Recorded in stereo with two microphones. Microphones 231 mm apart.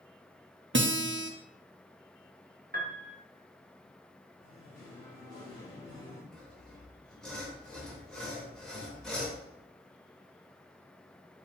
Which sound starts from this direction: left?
Singing, at 4.4 s.